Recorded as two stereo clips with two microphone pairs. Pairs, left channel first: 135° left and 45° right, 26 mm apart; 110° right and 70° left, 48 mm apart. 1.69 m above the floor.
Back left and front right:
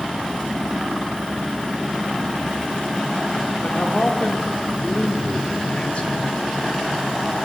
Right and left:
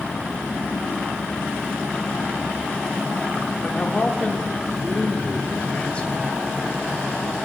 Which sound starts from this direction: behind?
A man speaking, at 3.6 s.